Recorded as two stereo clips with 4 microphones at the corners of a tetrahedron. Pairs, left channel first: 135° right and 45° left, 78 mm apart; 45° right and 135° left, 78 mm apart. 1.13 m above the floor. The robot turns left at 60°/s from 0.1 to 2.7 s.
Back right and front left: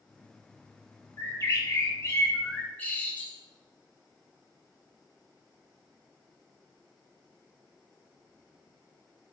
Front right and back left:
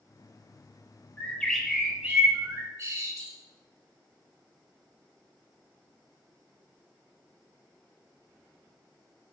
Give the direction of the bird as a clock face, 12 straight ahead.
3 o'clock.